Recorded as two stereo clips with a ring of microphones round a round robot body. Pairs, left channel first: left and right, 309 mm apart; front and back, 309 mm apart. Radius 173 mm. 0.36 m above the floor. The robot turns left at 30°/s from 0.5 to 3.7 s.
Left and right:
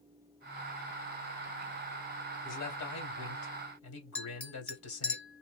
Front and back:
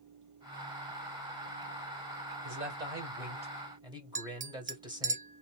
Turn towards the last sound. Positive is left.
turn(degrees=170)